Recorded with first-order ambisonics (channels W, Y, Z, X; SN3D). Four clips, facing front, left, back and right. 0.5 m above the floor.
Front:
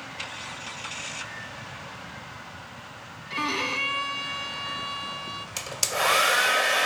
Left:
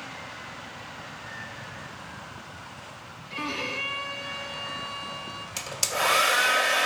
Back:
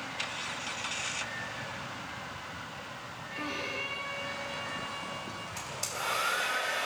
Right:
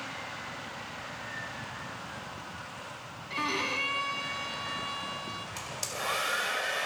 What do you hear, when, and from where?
3.3 s a violin: 15° right, 0.8 m
5.6 s a hair dryer: 35° left, 0.5 m